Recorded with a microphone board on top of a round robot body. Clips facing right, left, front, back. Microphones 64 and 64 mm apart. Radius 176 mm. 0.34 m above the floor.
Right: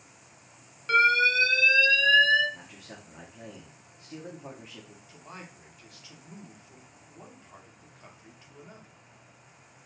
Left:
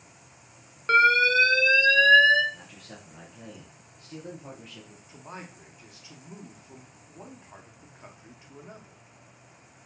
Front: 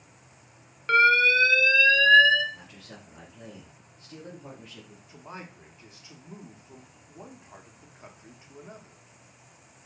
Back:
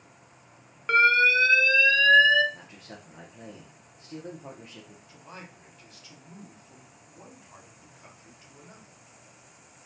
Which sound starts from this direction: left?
An alarm, at 0.9 s.